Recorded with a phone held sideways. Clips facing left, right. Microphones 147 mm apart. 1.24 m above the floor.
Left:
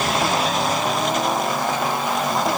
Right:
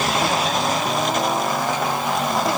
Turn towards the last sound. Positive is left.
No sound to turn to.